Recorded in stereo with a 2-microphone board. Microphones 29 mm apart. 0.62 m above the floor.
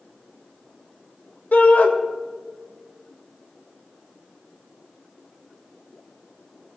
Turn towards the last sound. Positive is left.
turn(degrees=65)  # may be behind; listen again after turning